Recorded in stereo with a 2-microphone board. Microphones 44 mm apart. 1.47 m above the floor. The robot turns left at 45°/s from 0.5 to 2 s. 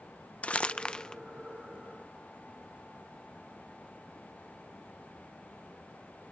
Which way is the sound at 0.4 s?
30° left (ahead or behind).